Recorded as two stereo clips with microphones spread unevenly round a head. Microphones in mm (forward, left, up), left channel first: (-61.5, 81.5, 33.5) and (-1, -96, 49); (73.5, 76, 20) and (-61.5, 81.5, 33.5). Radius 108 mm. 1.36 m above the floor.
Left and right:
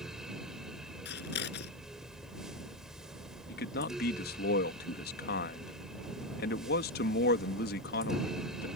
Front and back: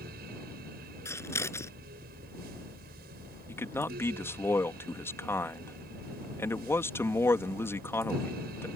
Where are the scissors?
70° left.